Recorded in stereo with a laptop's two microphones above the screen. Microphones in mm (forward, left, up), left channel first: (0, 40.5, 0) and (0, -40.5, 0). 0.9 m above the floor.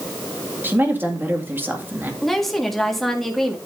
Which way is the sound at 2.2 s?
Centre (ahead or behind).